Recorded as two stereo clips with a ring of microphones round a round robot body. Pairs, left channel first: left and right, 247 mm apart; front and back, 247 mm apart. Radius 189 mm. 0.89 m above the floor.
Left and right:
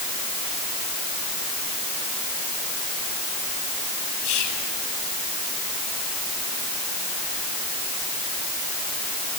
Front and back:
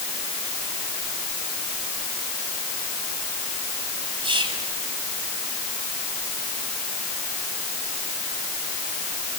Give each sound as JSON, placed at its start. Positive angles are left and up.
{"t": 4.2, "sound": "whispering", "azimuth_deg": 110, "distance_m": 6.5}